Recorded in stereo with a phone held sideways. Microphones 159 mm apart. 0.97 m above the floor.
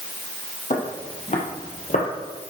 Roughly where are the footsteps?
Left.